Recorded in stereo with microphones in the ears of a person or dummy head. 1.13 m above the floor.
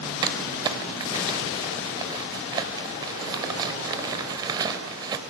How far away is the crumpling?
About 3 m.